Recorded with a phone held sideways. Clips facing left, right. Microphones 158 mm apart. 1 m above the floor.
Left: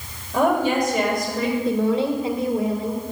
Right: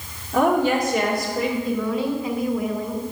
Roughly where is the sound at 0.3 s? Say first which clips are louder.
Right 1 dB; right.